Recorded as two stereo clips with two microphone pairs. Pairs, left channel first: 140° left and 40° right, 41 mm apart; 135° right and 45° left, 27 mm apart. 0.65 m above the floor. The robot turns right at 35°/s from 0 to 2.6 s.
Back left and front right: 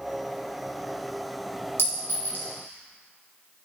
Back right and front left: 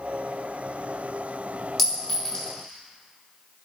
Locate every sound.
1.8 s a clink: 145° left, 1.5 m; by 2.5 s 165° left, 1.5 m